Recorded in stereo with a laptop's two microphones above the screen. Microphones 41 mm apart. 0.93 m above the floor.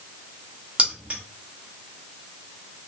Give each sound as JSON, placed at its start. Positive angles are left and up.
{"t": 0.8, "sound": "keys jangling", "side_deg": -30, "distance_m": 1.0}